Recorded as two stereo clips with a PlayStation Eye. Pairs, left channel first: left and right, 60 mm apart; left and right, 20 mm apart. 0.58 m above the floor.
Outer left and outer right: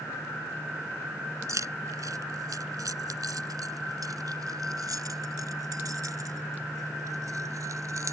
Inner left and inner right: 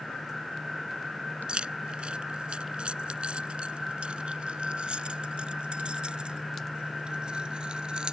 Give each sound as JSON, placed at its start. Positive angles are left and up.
{"t": 1.5, "sound": "keys jangling", "side_deg": -60}